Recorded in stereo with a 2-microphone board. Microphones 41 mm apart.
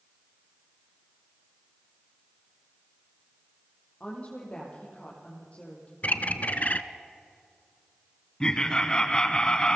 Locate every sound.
4.0 s a woman speaking: 35° left (ahead or behind), 7 m
6.0 s a bird: 40° left (ahead or behind), 0.9 m
8.4 s laughter: 20° left (ahead or behind), 1.1 m